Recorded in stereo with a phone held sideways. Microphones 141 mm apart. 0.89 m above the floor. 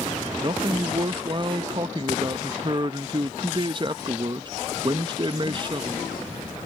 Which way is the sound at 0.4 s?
35° right (ahead or behind).